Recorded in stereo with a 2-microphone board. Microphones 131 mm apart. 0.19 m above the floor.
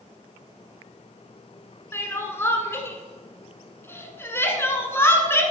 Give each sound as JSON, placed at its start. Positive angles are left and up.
{"t": 1.9, "sound": "crying", "side_deg": 20, "distance_m": 1.1}